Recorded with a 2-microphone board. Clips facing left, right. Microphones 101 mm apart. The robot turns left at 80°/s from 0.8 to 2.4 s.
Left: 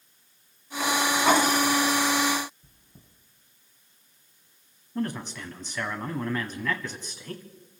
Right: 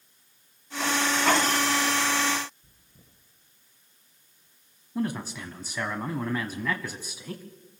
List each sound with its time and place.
2.6 s chewing: 60° left (ahead or behind), 5.5 m
5.0 s a man speaking: 10° right (ahead or behind), 1.0 m